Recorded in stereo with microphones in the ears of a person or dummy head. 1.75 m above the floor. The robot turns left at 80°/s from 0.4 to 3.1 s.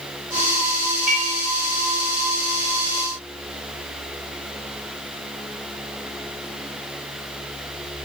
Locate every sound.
1.1 s dishes clattering: 10° right (ahead or behind), 0.8 m; by 1.3 s centre (ahead or behind), 0.8 m